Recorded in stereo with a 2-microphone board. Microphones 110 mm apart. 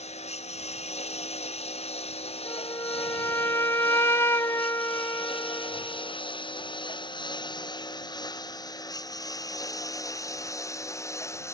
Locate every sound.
0.0 s a lawn mower: 80° left; by 11.5 s 25° left (ahead or behind)
2.5 s a flute: 25° left (ahead or behind)